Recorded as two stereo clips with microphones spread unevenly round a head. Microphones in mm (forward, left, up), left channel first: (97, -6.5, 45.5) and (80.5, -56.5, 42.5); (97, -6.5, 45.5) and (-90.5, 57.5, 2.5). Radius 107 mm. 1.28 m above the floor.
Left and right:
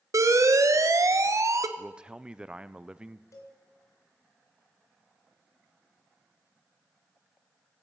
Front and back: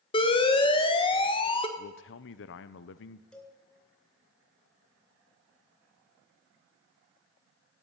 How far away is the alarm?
About 1.3 m.